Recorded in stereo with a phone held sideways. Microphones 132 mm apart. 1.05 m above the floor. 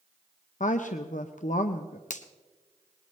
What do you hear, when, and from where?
0.6 s a woman speaking: 70° left (ahead or behind), 0.7 m
2.1 s a finger snap: 70° left (ahead or behind), 0.9 m